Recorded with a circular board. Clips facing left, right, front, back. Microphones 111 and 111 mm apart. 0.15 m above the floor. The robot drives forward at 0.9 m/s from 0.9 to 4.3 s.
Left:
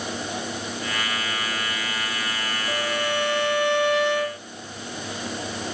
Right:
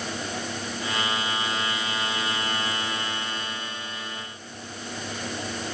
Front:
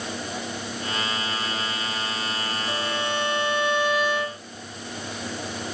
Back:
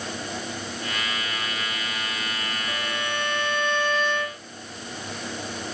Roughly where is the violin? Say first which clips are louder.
Left 5 dB, front 3 dB; left.